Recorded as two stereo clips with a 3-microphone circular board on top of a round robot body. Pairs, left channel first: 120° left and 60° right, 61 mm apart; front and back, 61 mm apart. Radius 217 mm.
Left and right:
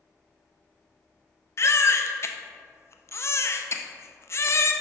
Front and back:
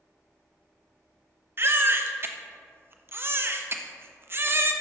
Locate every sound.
1.6 s a baby crying: 145° left, 0.7 m